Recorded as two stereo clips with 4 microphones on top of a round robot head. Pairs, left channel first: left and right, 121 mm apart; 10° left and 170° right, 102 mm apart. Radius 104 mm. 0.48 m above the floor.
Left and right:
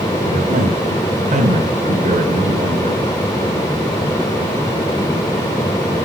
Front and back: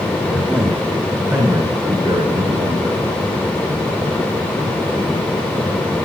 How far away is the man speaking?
About 3.5 m.